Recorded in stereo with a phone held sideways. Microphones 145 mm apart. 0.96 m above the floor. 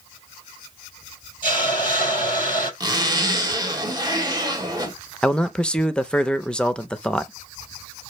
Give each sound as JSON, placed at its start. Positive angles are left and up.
{"t": 1.4, "sound": "a hiss", "side_deg": 35, "distance_m": 5.5}
{"t": 2.8, "sound": "a zipper", "side_deg": -25, "distance_m": 1.6}
{"t": 5.2, "sound": "a man speaking", "side_deg": 5, "distance_m": 0.6}